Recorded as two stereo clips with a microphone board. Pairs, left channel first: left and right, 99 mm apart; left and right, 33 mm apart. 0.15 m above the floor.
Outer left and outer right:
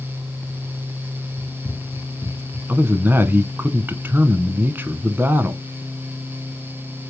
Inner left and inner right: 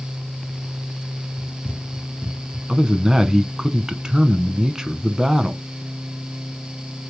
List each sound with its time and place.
1.4 s running footsteps: 45° left (ahead or behind), 2 m; by 2.6 s 5° left (ahead or behind), 3 m
2.7 s a man speaking: 20° right (ahead or behind), 1.2 m